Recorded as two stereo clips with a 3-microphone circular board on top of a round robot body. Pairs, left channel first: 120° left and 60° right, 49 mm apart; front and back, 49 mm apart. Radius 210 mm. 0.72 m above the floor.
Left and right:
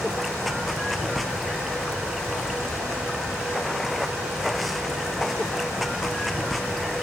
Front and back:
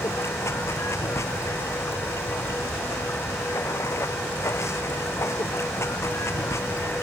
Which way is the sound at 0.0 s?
30° left.